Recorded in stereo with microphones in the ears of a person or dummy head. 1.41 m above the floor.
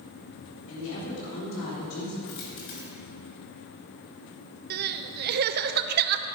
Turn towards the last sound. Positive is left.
turn(degrees=-55)  # may be behind; listen again after turning